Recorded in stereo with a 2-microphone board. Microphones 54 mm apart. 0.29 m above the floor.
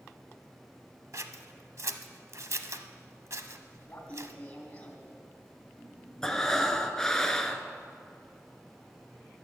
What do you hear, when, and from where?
1.1 s scissors: 65° right (ahead or behind), 0.7 m
3.9 s laughter: 25° left (ahead or behind), 2.5 m
6.2 s breathing: 10° left (ahead or behind), 0.9 m